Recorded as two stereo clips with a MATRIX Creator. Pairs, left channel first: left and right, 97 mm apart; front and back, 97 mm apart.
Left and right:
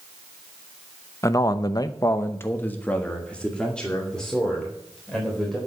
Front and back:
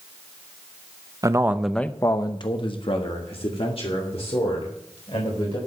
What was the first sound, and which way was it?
A man speaking, 135° left.